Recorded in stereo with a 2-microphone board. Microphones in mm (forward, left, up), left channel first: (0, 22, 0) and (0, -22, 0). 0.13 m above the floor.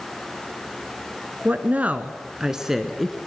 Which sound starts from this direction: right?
A woman speaking, at 1.4 s.